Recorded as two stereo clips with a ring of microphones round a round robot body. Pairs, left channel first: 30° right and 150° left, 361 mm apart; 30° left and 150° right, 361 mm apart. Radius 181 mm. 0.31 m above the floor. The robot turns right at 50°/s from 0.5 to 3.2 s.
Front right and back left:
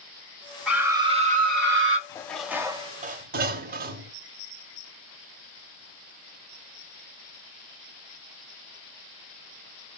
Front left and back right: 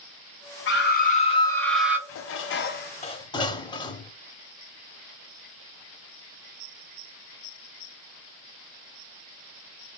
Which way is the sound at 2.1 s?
45° left.